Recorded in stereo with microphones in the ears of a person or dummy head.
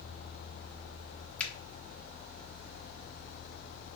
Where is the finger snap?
10° left (ahead or behind), 0.5 m.